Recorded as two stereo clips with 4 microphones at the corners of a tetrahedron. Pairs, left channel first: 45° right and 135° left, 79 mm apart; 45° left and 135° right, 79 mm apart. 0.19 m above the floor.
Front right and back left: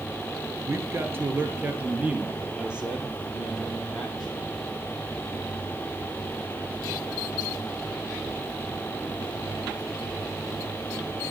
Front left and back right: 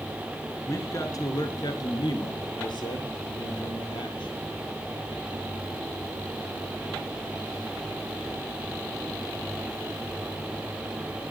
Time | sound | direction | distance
0.7 | a man speaking | 90° left | 3 m